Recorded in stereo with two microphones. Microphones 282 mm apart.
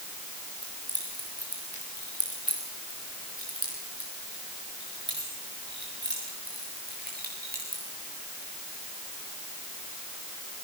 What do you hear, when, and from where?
0.6 s keys jangling: 65° right (ahead or behind), 9 m; by 7.8 s 30° right (ahead or behind), 10 m